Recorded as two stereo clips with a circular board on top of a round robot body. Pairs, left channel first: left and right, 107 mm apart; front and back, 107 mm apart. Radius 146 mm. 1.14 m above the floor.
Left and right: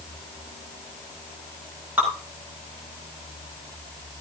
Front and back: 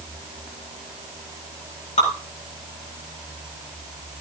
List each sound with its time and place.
2.0 s dripping: 15° right, 8.5 m